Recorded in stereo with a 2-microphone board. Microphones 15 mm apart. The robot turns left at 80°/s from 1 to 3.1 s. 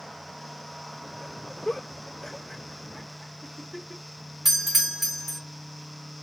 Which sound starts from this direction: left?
A giggle, at 1.6 s.